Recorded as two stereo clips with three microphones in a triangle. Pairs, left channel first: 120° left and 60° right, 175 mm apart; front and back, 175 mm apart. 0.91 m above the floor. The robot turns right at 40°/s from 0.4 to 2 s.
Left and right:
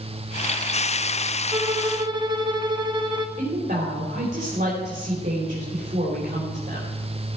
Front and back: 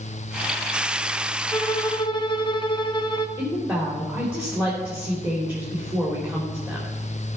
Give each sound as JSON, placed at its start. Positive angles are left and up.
{"t": 1.5, "sound": "a violin", "azimuth_deg": -45, "distance_m": 0.8}
{"t": 3.4, "sound": "a woman speaking", "azimuth_deg": -100, "distance_m": 3.0}